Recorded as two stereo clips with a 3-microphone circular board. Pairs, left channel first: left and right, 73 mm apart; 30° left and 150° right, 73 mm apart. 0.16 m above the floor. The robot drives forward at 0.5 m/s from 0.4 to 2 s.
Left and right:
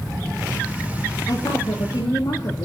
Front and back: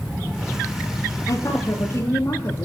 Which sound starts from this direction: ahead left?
A woman speaking, at 1.3 s.